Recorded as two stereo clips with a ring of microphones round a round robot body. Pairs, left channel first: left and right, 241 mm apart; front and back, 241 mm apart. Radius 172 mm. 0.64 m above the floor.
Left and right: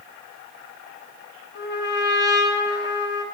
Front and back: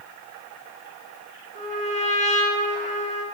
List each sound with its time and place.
1.6 s a trumpet: 125° left, 1.0 m